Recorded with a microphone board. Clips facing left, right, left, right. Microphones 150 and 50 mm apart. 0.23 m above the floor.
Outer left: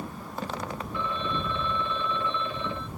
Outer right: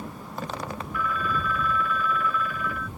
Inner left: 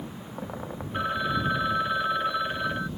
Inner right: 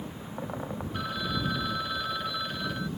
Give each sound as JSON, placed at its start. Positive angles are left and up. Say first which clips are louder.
{"t": 0.9, "sound": "a phone ringing", "louder": "outer right 3 dB, inner left 7 dB", "side_deg": 25}